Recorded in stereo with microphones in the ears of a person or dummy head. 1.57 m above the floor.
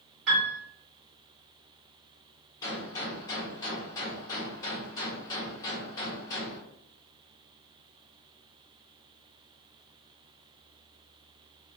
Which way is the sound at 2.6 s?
20° left (ahead or behind).